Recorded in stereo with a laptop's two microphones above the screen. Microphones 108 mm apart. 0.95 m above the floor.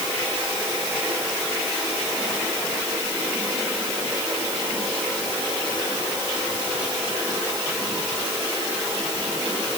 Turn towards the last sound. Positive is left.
No sound to turn to.